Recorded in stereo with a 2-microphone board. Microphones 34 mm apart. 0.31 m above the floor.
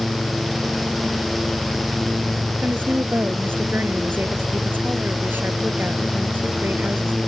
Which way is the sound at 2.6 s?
75° right (ahead or behind).